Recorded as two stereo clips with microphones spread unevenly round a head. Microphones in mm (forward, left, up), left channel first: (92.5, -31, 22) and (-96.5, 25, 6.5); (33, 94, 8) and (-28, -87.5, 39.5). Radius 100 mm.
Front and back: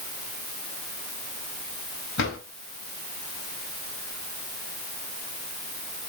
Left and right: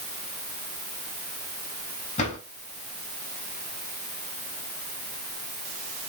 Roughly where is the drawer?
Ahead.